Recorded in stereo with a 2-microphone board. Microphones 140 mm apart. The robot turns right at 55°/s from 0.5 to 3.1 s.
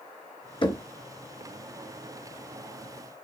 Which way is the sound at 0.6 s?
35° left (ahead or behind).